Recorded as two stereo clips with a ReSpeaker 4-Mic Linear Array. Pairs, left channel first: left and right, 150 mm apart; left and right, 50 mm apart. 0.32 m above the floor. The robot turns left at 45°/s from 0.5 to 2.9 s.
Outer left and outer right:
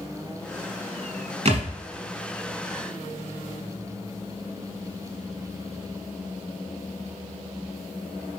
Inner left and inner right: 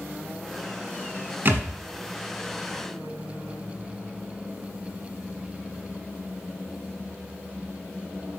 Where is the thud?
45° right (ahead or behind), 1.3 m; by 1.7 s 55° right (ahead or behind), 1.3 m.